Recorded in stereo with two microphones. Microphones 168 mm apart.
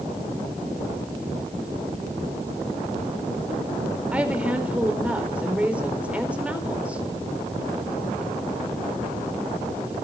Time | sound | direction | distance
4.1 | a woman speaking | 10° right (ahead or behind) | 4 m